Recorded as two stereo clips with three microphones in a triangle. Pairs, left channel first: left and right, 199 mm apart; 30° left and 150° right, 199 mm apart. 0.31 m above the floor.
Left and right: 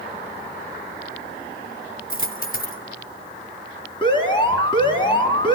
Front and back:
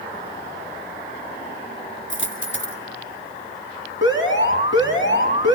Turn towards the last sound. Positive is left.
turn(degrees=25)